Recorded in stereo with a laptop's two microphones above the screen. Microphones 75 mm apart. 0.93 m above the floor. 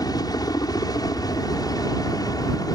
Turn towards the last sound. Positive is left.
turn(degrees=60)  # may be behind; listen again after turning